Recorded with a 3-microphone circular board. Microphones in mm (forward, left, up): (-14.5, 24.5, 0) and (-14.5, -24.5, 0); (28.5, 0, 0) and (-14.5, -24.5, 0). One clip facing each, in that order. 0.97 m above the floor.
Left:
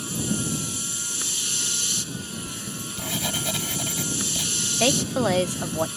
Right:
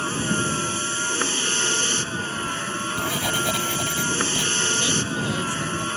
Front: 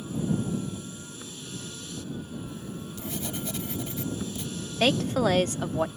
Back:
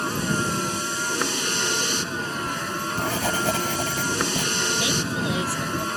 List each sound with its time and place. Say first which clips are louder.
0.0 s a vehicle: right 5 dB, back 6 dB; 135° right
2.5 s writing: right 9 dB, back 12 dB; 170° right
4.8 s a woman speaking: left 2 dB, front 1 dB; 70° left